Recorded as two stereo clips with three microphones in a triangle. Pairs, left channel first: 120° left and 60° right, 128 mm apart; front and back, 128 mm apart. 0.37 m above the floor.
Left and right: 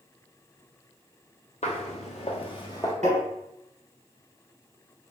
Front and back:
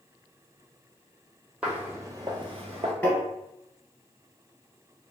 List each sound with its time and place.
1.6 s footsteps: 100° left, 0.8 m; by 2.9 s straight behind, 0.6 m
3.0 s tapping: 75° right, 1.1 m